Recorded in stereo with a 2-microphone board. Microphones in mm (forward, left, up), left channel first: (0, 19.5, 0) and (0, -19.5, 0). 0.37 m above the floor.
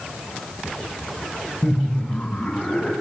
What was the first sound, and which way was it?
Laughter, 30° left (ahead or behind).